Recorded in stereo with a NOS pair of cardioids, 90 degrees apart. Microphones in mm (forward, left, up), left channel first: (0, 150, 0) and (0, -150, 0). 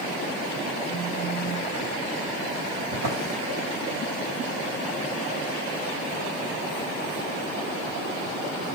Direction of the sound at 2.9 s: 70° right.